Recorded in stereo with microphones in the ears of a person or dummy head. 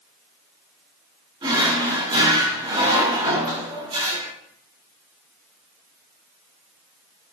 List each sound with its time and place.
1.4 s a drawer: 25° right (ahead or behind), 1.8 m